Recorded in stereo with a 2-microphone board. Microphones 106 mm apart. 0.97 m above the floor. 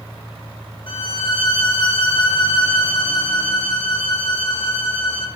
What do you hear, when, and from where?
0.9 s a violin: 50° left (ahead or behind), 1.3 m